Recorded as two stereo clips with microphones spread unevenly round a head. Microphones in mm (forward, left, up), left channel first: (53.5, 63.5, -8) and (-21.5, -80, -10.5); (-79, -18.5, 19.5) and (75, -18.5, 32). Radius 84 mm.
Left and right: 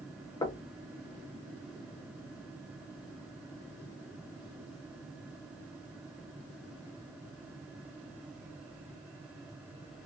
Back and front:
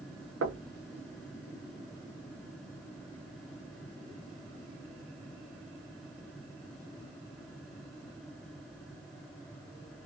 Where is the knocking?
5° right, 0.6 m.